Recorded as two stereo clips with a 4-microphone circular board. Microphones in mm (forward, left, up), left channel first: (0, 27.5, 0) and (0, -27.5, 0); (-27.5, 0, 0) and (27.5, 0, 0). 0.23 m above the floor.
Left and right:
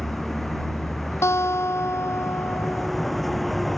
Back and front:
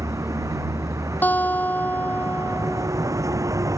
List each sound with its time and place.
0.0 s a vehicle: straight ahead
1.2 s a guitar: 125° left